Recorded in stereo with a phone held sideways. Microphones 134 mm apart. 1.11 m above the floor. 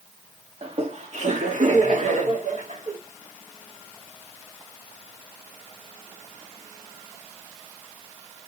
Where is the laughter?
50° right (ahead or behind), 1.9 m; by 2.9 s 70° right (ahead or behind), 5 m.